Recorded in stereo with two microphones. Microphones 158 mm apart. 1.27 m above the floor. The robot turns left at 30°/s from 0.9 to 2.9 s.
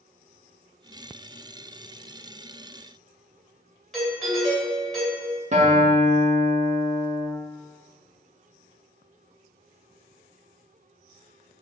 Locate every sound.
3.9 s a doorbell: centre (ahead or behind), 1.4 m
5.5 s a guitar: 45° right (ahead or behind), 0.6 m